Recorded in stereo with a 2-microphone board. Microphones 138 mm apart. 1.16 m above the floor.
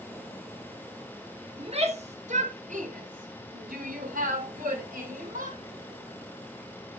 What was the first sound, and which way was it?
A shout, 45° right (ahead or behind).